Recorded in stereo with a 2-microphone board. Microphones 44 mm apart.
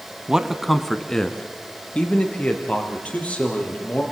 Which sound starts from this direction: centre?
A man speaking, at 0.3 s.